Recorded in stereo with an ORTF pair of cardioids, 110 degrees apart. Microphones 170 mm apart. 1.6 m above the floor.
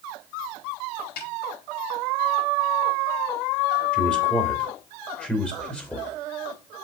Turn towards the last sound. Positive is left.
turn(degrees=5)